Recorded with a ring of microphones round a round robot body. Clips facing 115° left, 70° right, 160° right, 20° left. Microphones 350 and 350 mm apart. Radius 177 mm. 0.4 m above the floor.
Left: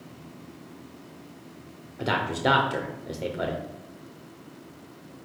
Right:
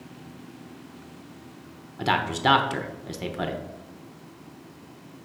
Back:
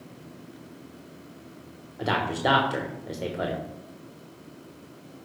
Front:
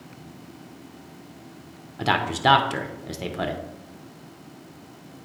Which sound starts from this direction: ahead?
A man speaking, at 2.0 s.